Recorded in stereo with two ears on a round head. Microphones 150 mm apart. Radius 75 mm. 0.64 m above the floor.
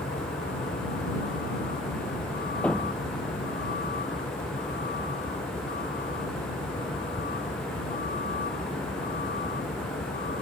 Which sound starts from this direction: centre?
A thud, at 2.6 s.